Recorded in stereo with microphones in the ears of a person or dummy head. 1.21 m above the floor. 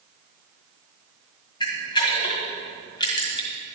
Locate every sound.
1.6 s a camera shutter: 20° left (ahead or behind), 1.7 m